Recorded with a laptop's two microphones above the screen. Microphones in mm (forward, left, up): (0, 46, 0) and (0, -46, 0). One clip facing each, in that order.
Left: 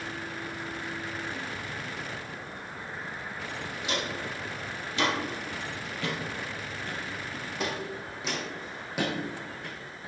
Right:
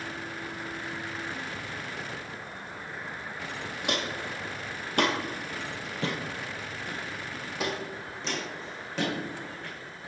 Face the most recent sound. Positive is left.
turn(degrees=15)  # may be behind; listen again after turning